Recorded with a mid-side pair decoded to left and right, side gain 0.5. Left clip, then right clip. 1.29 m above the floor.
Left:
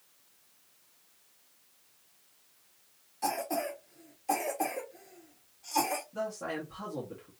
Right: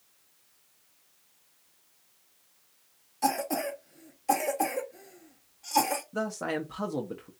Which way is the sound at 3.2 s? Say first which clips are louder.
Right 4 dB; 35° right.